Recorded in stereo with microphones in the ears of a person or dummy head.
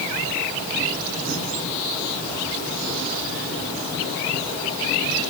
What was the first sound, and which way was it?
Only background noise.